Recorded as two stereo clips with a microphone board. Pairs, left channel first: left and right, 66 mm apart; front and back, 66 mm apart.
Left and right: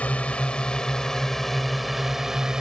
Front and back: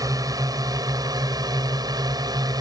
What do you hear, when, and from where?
0.0 s a drone: 160° left; by 2.6 s 170° right